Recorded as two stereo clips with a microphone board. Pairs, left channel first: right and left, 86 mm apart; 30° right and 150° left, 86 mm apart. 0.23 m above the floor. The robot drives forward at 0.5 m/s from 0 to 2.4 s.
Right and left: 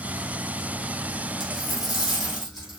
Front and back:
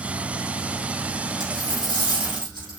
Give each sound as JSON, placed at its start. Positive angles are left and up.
{"t": 1.4, "sound": "a dropped coin", "azimuth_deg": 175, "distance_m": 4.0}